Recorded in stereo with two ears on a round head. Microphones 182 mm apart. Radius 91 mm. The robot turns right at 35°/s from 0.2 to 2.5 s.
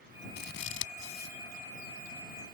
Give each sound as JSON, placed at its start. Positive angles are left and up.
{"t": 0.4, "sound": "scissors", "side_deg": 50}